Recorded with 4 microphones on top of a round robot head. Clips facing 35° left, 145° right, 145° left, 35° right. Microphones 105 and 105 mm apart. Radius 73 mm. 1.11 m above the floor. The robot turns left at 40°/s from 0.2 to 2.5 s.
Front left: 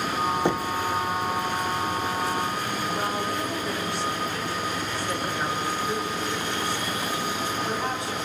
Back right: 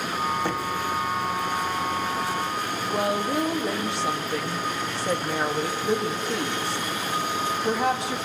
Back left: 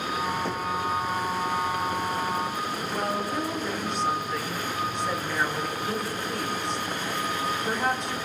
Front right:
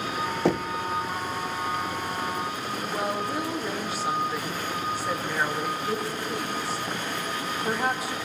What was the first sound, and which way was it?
Knocking, 35° right.